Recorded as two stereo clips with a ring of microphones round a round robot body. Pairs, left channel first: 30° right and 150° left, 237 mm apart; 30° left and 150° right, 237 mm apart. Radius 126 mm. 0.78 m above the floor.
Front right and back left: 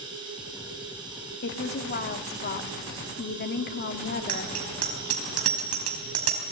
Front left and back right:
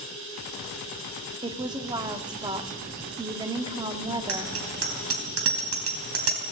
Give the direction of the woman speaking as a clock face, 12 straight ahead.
3 o'clock.